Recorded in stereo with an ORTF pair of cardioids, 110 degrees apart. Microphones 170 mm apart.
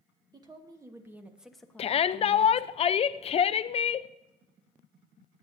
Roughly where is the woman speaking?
Ahead right.